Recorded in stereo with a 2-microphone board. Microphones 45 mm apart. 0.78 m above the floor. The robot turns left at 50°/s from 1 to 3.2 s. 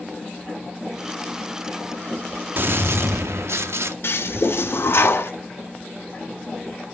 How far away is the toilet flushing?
About 0.6 m.